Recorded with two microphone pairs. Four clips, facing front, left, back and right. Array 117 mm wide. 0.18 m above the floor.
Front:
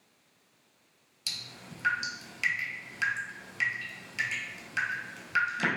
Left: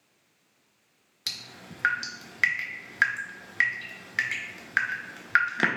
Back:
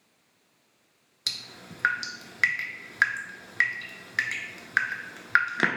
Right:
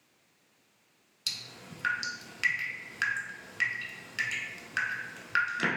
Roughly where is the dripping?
Behind left.